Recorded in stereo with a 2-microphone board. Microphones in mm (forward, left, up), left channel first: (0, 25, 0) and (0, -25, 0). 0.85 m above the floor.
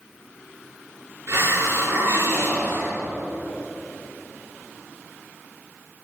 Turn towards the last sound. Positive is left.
turn(degrees=-65)  # may be behind; listen again after turning